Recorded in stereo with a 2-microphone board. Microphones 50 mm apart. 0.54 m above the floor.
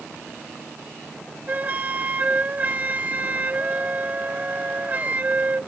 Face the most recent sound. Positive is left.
turn(degrees=-35)  # may be behind; listen again after turning